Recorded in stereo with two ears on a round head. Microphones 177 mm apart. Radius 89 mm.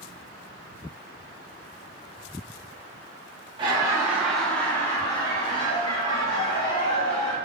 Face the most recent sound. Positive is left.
turn(degrees=60)  # may be behind; listen again after turning